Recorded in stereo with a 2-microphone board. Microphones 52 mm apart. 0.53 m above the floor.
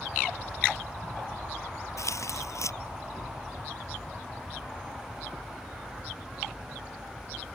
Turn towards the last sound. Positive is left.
turn(degrees=75)  # may be behind; listen again after turning